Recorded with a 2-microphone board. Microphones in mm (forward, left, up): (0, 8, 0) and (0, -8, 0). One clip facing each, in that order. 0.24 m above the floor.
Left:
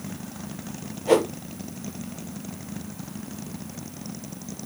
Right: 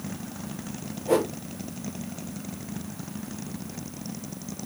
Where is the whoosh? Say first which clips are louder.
Left 4 dB; 40° left (ahead or behind), 1.0 m.